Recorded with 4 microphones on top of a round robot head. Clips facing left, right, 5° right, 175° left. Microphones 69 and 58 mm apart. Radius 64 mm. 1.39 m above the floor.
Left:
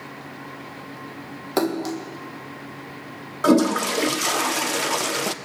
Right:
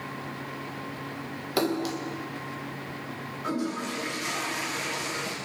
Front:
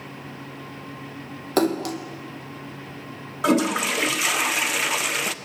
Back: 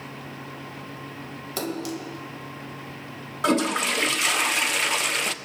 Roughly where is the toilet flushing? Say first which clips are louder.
Left 13 dB, front 2 dB; left.